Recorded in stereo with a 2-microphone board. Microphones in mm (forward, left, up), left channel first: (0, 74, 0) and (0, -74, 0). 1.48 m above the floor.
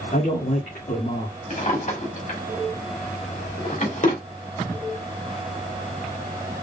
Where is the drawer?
60° left (ahead or behind), 2 m.